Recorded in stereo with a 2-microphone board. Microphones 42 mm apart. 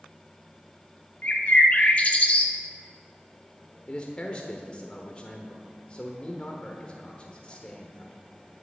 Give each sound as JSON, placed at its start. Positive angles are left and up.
{"t": 1.2, "sound": "a bird", "side_deg": 35, "distance_m": 1.3}
{"t": 3.9, "sound": "a man speaking", "side_deg": 25, "distance_m": 1.2}